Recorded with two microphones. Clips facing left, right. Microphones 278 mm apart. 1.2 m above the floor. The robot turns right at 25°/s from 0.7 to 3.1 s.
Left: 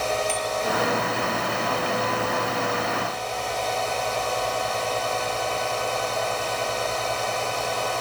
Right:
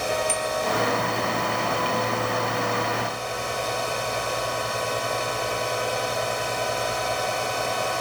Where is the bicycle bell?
15° left (ahead or behind), 3.5 m.